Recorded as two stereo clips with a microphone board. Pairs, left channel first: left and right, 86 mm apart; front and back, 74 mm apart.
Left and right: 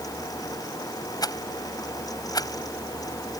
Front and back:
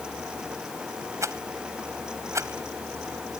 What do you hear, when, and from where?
1.2 s a rattle: 130° left